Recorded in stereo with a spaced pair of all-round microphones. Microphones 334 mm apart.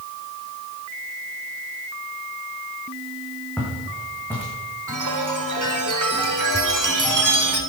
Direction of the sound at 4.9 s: 65° right (ahead or behind).